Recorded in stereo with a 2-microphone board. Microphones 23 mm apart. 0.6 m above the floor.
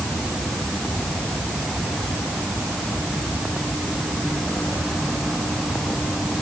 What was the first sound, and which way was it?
Only background noise.